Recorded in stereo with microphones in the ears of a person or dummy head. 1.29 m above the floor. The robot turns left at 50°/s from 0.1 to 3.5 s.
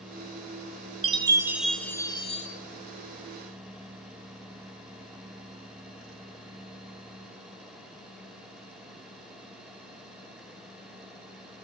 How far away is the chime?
About 1.4 m.